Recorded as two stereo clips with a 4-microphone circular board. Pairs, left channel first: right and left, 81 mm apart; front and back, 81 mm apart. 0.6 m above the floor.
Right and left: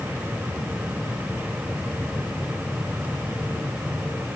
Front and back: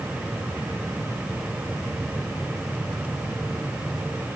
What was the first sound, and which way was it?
Only background noise.